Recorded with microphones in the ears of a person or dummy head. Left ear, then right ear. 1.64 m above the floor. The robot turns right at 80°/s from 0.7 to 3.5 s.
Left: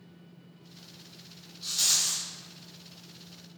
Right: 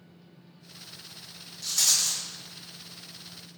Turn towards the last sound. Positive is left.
turn(degrees=10)